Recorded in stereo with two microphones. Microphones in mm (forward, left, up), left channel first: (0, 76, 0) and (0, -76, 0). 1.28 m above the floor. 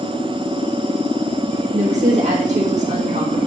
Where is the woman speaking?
50° right (ahead or behind), 1.7 m.